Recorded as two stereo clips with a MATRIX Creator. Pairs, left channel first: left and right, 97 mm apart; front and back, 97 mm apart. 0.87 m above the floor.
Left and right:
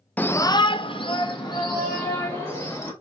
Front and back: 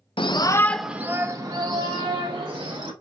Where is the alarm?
I don't hear an alarm.